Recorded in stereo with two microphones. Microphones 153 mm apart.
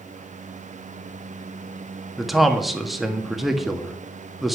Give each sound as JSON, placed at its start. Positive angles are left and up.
{"t": 2.2, "sound": "a man speaking", "side_deg": 0, "distance_m": 1.5}